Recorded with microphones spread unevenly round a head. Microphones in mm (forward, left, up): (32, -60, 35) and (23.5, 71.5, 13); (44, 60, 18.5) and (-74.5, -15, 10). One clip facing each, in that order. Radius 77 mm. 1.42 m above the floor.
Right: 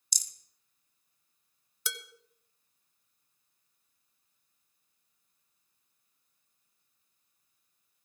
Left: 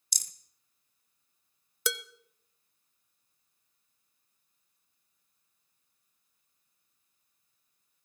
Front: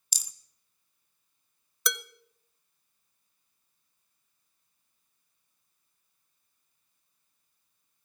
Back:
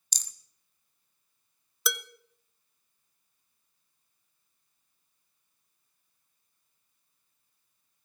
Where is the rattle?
115° left, 0.8 m.